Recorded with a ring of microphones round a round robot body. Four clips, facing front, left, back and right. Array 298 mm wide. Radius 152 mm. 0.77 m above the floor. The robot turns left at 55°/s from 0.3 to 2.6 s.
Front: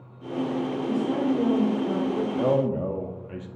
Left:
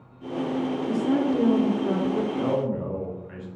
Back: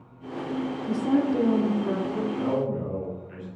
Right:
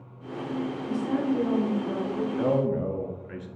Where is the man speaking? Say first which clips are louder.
Right 1 dB, front 6 dB; 15° right, 1.3 m; by 3.5 s 30° right, 1.3 m.